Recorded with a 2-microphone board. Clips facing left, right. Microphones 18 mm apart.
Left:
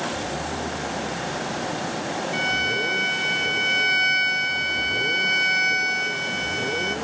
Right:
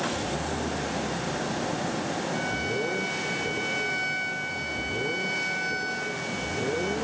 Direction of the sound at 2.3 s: 50° left (ahead or behind).